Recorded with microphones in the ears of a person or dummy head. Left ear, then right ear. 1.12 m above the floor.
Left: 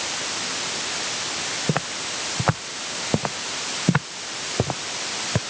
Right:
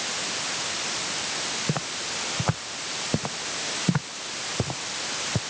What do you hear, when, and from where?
1.7 s footsteps: 35° left (ahead or behind); by 5.4 s 55° left (ahead or behind)